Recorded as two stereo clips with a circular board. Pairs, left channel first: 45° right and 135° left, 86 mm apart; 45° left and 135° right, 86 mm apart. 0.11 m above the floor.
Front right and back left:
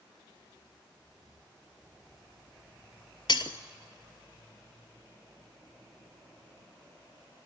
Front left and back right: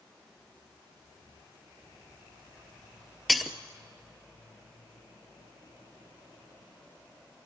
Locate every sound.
3.3 s breaking glass: 45° right, 0.8 m